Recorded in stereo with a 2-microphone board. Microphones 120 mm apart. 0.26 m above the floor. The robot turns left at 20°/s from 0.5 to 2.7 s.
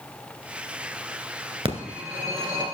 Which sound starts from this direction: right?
A phone ringing, at 1.6 s.